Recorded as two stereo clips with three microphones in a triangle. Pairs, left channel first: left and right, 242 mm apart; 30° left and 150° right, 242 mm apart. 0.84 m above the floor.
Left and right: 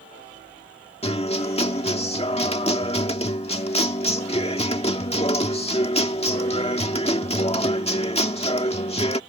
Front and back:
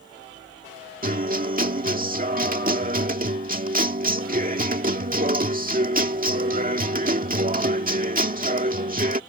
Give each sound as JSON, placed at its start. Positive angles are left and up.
{"t": 1.0, "sound": "a guitar", "azimuth_deg": 155}